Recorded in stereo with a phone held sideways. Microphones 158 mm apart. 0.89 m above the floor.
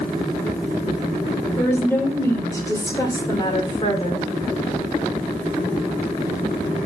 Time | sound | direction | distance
1.6 | a woman speaking | 10° left (ahead or behind) | 3.5 m